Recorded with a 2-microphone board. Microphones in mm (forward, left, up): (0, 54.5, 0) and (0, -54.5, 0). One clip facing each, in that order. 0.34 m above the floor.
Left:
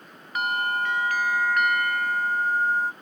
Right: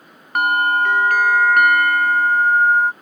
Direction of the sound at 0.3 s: 75° right (ahead or behind).